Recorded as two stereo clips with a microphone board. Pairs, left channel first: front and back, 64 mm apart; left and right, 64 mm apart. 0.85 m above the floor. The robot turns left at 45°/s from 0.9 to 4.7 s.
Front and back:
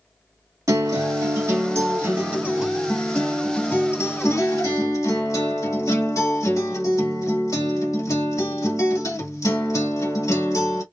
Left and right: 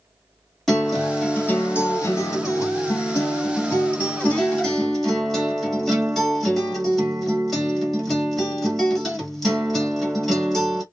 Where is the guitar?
175° left, 1.6 m; by 10.8 s 5° left, 1.6 m.